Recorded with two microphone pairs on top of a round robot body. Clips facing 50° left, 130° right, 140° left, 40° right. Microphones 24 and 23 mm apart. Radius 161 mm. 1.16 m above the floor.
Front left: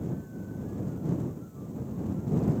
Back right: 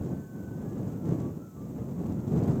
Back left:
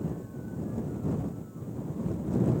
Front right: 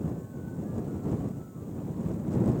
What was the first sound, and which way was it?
Only background noise.